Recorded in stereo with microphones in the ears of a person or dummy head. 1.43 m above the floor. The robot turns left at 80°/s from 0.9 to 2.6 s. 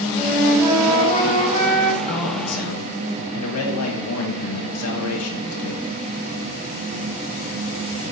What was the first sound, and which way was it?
A flute, 175° right.